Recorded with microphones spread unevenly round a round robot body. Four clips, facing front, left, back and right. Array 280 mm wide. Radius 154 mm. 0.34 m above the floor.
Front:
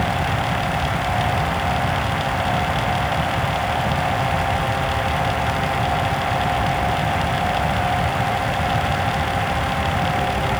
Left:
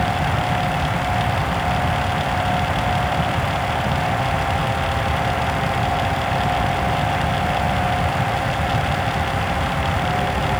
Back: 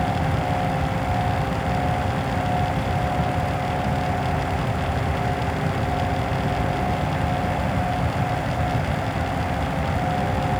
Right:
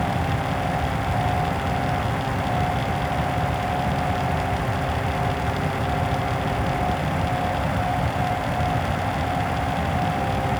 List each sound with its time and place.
Only background noise.